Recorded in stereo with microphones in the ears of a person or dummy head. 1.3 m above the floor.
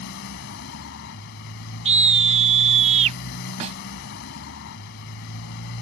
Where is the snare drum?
35° right (ahead or behind).